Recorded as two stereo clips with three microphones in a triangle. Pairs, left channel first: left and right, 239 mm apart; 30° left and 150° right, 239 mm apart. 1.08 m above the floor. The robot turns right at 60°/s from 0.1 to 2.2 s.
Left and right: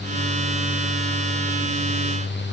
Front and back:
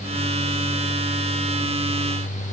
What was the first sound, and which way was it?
Only background noise.